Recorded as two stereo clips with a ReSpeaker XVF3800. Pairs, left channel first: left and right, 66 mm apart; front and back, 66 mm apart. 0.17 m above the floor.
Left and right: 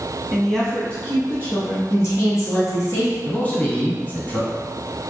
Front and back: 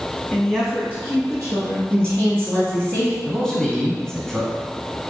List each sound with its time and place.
0.3 s a woman speaking: 5° right, 1.0 m; by 1.8 s 150° left, 2 m
1.9 s a woman speaking: 75° left, 1.8 m
3.2 s a man speaking: 65° left, 1.6 m